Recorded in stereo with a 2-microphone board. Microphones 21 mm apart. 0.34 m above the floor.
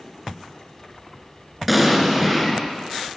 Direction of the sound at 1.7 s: 5° right (ahead or behind).